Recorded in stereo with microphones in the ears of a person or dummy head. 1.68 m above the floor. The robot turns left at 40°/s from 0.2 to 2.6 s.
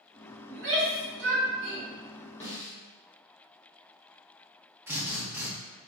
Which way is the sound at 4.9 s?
10° right (ahead or behind).